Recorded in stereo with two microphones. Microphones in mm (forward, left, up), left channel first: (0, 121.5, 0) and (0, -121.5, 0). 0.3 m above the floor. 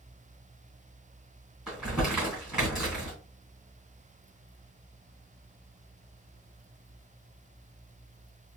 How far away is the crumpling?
About 2.5 m.